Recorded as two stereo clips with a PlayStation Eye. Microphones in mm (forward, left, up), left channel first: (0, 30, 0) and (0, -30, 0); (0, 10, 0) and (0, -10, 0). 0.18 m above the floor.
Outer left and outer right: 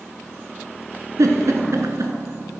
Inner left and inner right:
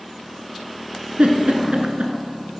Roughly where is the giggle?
Right.